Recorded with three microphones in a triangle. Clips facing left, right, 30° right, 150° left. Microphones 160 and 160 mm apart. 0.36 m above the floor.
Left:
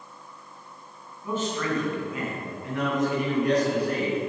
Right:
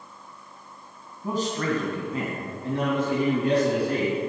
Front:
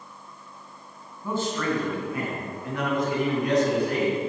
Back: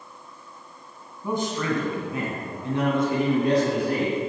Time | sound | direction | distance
1.2 | a man speaking | 135° right | 3 m